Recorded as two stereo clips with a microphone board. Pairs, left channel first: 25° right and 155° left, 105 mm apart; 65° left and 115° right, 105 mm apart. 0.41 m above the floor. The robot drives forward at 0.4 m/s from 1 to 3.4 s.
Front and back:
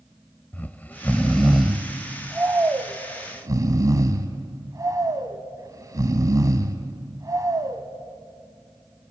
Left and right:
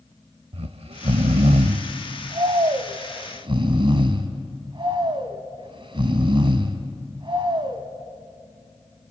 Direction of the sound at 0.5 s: 95° right.